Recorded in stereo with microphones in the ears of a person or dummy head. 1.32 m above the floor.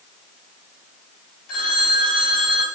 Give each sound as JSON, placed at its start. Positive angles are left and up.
{"t": 1.5, "sound": "a phone ringing", "side_deg": 45, "distance_m": 3.0}